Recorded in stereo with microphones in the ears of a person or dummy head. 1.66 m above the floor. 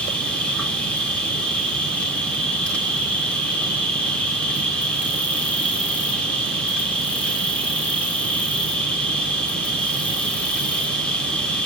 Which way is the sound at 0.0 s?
5° left (ahead or behind).